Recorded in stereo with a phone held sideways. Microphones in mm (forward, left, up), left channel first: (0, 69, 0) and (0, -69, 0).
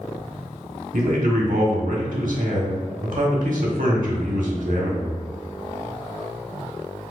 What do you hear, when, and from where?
0.9 s a man speaking: 85° right, 1.3 m